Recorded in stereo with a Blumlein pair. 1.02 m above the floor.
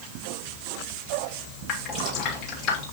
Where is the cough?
No cough in this recording.